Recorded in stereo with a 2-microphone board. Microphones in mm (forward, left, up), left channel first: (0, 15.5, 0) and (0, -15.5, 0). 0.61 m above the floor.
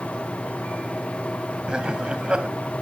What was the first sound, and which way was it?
Laughter, 30° right (ahead or behind).